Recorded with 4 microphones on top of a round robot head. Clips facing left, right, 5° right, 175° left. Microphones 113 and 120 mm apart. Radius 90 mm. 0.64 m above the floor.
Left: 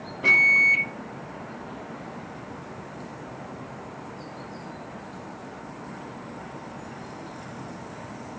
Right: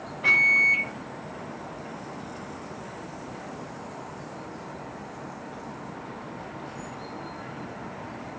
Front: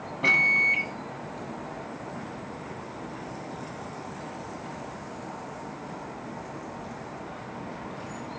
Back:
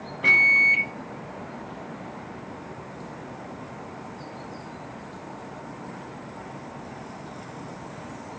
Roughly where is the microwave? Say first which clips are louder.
Left 2 dB, back 2 dB; ahead left.